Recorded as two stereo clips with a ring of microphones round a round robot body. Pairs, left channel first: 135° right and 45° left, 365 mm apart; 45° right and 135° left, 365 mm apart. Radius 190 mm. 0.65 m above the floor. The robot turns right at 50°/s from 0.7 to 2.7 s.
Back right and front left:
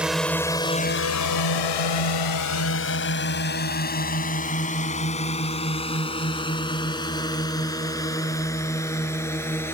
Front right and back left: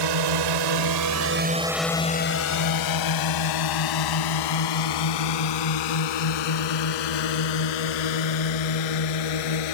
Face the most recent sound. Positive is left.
turn(degrees=-50)